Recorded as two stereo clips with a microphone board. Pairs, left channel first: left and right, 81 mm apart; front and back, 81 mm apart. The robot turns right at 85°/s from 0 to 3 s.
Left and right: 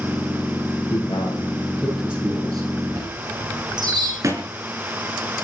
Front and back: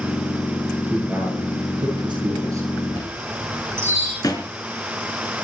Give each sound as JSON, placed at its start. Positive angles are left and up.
{"t": 0.9, "sound": "a man speaking", "azimuth_deg": 90, "distance_m": 10.0}
{"t": 2.9, "sound": "a chime", "azimuth_deg": -135, "distance_m": 8.5}
{"t": 4.2, "sound": "a thud", "azimuth_deg": -40, "distance_m": 4.0}